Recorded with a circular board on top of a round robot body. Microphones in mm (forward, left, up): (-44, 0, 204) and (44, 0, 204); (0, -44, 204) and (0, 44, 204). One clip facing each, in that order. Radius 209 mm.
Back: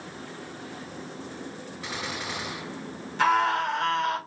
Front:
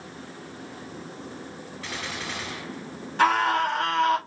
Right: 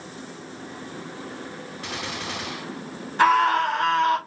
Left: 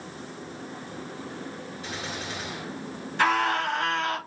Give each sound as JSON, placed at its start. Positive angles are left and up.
{"t": 1.8, "sound": "a gunshot", "azimuth_deg": -105, "distance_m": 2.5}
{"t": 3.2, "sound": "a scream", "azimuth_deg": -40, "distance_m": 3.5}